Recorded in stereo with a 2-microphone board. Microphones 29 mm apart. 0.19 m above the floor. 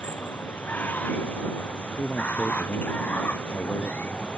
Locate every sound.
0.0 s running water: 70° left (ahead or behind)
2.0 s a man speaking: 55° left (ahead or behind)